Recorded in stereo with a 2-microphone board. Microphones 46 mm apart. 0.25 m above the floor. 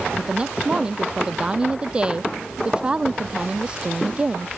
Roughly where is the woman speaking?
Right.